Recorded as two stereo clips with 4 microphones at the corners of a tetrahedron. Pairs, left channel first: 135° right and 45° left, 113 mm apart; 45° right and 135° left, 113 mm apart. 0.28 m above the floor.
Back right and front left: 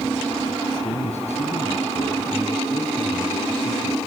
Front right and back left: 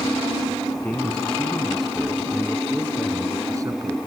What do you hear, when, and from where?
0.8 s a man speaking: 125° right, 3.5 m; by 4.0 s straight behind, 2.5 m